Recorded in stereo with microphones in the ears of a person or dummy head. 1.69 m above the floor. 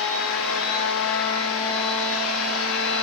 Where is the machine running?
70° left (ahead or behind), 1.1 m.